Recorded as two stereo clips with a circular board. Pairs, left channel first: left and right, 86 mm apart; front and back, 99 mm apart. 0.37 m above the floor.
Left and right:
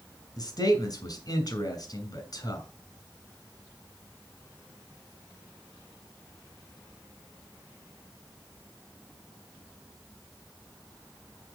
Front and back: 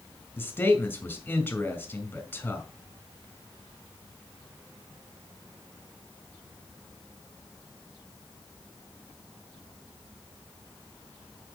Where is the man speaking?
65° left, 2.5 m.